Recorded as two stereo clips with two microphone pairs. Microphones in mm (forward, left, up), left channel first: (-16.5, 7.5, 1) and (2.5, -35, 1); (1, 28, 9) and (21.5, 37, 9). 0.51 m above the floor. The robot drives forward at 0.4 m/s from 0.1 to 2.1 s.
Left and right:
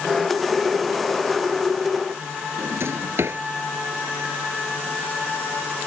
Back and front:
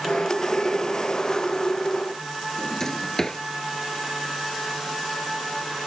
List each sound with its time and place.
2.6 s a drawer: 95° right